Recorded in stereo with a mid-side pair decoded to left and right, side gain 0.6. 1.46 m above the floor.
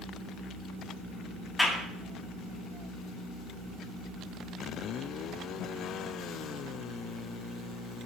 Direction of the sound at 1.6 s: 10° left.